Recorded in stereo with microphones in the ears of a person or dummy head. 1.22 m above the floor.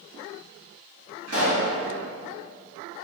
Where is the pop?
70° right (ahead or behind), 1.3 m.